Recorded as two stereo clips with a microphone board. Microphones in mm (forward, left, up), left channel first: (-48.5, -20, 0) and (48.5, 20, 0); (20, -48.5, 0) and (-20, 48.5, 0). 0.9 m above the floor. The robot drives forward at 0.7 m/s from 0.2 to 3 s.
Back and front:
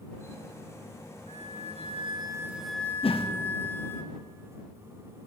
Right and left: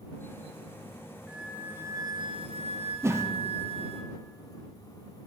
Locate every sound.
1.3 s a flute: 30° left, 0.9 m; by 4.0 s 135° left, 0.6 m
3.0 s a whoosh: 175° left, 0.6 m